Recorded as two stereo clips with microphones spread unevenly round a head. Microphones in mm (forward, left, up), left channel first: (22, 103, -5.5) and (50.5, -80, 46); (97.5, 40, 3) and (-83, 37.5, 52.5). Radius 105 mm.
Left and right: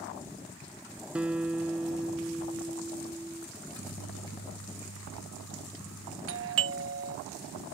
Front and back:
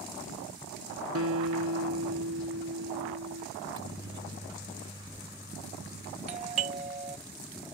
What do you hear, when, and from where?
1.1 s a guitar: 165° right
3.6 s a microwave: 115° left
6.3 s a doorbell: 115° right